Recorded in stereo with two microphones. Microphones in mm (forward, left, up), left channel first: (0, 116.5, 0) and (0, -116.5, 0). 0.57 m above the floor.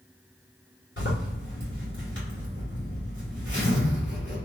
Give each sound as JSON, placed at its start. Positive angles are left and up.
{"t": 1.0, "sound": "a zipper", "side_deg": 55, "distance_m": 1.8}